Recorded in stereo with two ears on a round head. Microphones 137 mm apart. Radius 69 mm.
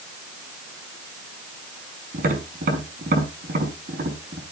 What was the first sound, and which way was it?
Tapping, 60° right (ahead or behind).